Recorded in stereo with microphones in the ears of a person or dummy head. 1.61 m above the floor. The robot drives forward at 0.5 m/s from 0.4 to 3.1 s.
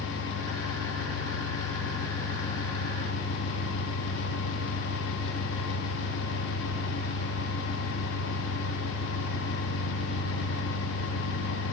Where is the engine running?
50° left (ahead or behind), 3 m; by 11.7 s 35° left (ahead or behind), 3.5 m.